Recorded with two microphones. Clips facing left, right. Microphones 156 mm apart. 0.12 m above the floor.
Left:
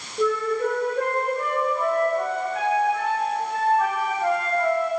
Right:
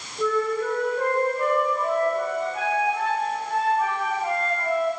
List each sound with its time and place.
0.2 s a flute: 80° left, 5.5 m